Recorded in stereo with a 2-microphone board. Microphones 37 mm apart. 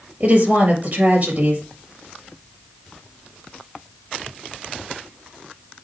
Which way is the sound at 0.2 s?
45° right (ahead or behind).